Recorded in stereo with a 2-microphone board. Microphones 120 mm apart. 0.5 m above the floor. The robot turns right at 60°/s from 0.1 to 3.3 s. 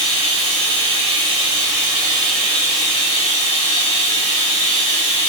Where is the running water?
130° right, 1.4 m; by 5.3 s 60° left, 1.4 m.